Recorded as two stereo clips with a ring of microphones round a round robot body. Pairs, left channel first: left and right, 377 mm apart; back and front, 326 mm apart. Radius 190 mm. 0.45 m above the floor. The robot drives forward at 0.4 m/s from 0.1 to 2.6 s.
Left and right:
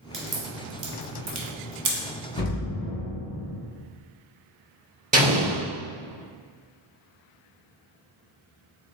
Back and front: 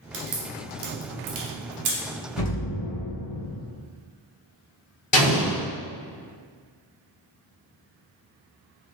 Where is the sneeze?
I don't hear a sneeze.